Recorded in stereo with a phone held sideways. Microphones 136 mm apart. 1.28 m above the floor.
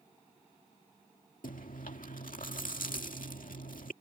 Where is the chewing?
85° left.